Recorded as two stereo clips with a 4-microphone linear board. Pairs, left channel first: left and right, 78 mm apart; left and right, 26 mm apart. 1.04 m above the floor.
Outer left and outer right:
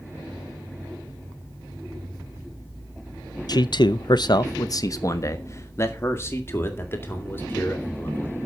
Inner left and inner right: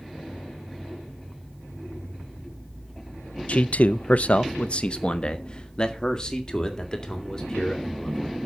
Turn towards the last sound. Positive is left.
turn(degrees=25)  # may be behind; listen again after turning